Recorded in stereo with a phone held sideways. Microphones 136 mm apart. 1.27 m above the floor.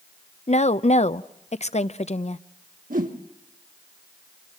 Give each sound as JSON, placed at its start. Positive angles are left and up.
{"t": 0.5, "sound": "a woman speaking", "side_deg": 50, "distance_m": 0.6}
{"t": 2.9, "sound": "a whoosh", "side_deg": -70, "distance_m": 1.6}